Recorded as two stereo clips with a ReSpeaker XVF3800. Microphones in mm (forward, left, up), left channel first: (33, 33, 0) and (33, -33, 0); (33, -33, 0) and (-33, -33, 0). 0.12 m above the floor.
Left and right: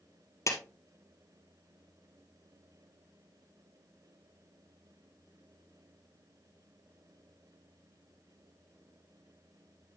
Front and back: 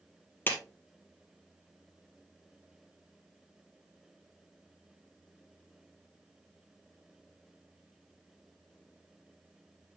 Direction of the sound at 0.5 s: 55° left.